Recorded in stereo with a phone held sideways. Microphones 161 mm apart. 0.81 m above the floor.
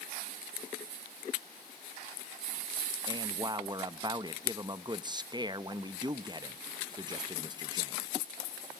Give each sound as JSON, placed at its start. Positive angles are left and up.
{"t": 3.1, "sound": "a man speaking", "side_deg": -25, "distance_m": 0.5}